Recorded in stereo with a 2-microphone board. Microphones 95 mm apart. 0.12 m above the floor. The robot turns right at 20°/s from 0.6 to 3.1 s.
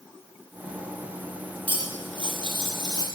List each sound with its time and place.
1.7 s cutlery clinking: 65° right (ahead or behind), 1.8 m; by 3.0 s 45° right (ahead or behind), 1.8 m